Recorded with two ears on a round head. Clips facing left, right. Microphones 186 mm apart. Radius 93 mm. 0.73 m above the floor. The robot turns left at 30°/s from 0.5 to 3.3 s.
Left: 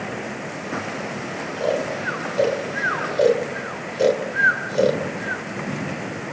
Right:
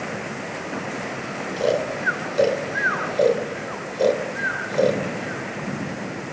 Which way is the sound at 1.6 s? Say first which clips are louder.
Right 1 dB; 40° right (ahead or behind).